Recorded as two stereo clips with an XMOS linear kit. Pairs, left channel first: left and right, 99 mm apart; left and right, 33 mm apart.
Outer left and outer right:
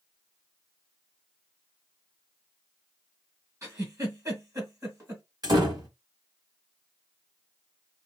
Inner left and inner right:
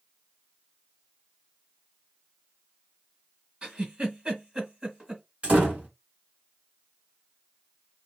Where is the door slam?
45° right (ahead or behind), 1.6 m.